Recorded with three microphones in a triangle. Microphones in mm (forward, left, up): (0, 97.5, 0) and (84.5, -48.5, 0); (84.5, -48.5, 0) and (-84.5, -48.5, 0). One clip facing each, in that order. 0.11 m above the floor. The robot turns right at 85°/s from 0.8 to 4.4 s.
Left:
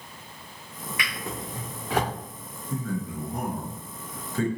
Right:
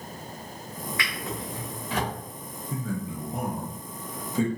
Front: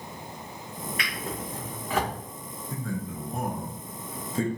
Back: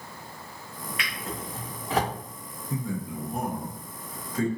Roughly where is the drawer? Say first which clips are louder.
Left 2 dB, even; ahead left.